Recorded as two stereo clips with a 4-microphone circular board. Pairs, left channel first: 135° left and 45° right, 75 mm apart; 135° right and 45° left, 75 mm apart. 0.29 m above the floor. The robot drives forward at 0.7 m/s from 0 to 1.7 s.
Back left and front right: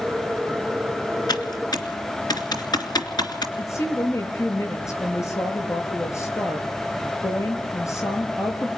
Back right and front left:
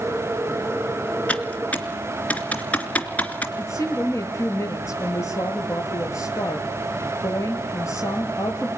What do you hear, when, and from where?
1.3 s typing on a keyboard: 155° left, 2.5 m
3.6 s a woman speaking: straight behind, 7 m